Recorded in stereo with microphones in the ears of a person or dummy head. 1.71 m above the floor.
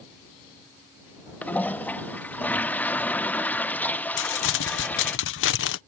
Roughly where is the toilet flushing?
Centre.